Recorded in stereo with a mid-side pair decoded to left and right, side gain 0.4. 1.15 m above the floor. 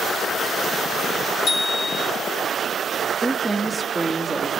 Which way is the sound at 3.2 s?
5° right.